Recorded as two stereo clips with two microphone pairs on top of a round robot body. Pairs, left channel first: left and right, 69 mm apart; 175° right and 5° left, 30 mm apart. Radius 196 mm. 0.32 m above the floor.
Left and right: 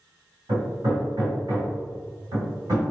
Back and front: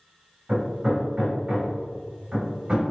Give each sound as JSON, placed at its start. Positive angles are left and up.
{"t": 0.5, "sound": "hammering", "azimuth_deg": -60, "distance_m": 1.9}